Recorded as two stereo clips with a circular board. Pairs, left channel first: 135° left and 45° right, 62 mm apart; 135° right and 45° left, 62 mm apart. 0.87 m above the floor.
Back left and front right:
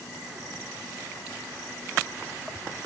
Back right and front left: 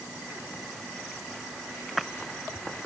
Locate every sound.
Only background noise.